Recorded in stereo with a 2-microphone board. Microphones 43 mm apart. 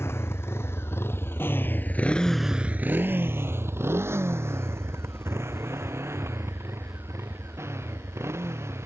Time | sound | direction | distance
0.0 | a motorcycle | 75° left (ahead or behind) | ?